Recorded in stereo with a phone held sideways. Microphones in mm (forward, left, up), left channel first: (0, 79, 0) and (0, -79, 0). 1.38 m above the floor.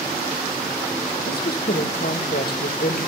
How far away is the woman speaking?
About 1.4 m.